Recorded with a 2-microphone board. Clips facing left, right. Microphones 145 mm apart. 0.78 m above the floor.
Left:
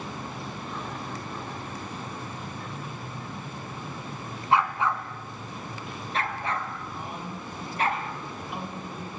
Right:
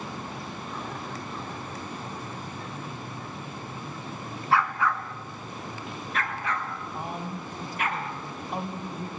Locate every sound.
4.5 s a dog barking: 20° left (ahead or behind), 1.7 m; by 7.9 s 40° left (ahead or behind), 3.5 m
6.9 s a man speaking: 45° right (ahead or behind), 4.5 m